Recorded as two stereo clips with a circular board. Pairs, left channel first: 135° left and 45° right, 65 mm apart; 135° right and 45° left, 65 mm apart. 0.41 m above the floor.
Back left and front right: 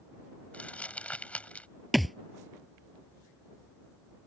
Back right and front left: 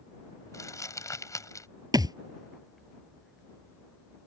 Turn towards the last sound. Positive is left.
turn(degrees=45)